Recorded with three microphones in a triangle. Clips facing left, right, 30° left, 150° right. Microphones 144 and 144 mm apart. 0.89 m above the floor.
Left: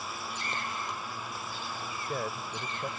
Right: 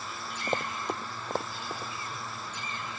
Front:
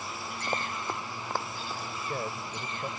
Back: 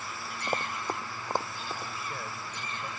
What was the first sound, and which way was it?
Running footsteps, 65° right.